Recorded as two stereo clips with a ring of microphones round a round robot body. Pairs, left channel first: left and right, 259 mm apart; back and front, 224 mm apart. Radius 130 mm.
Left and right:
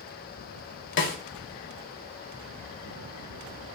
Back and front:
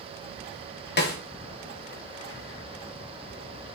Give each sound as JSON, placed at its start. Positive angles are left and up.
{"t": 1.0, "sound": "a snare drum", "azimuth_deg": 140, "distance_m": 1.4}